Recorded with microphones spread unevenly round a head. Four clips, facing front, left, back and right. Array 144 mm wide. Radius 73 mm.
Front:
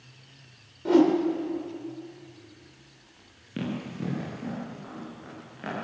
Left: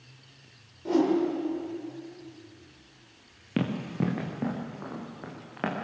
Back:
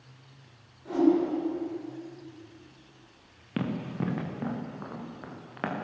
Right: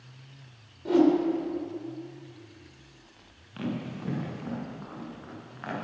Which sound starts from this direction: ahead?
A whoosh, at 0.8 s.